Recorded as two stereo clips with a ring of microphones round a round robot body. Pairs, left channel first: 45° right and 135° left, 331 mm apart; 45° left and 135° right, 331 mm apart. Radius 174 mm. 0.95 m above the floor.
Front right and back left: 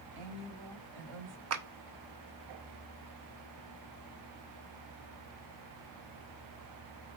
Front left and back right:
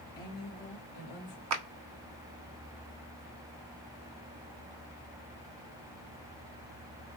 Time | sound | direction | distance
0.1 | a woman speaking | 125° left | 4 m
1.5 | a clap | straight behind | 0.9 m